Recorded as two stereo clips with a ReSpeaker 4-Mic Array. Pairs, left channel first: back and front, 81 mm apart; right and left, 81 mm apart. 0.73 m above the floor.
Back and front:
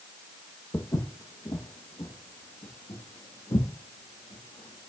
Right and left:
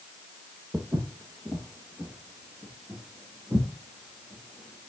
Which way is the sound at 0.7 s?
145° left.